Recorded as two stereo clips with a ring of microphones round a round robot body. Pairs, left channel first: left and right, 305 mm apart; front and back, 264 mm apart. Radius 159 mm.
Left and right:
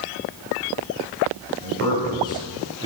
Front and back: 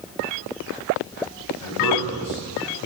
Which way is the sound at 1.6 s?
15° left.